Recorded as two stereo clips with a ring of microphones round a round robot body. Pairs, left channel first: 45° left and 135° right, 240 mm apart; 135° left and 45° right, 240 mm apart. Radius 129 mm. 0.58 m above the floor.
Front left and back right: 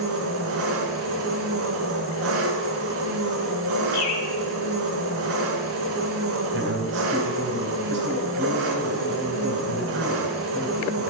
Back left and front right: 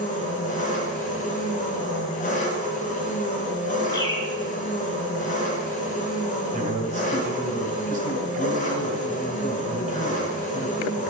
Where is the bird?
60° left, 2.5 m.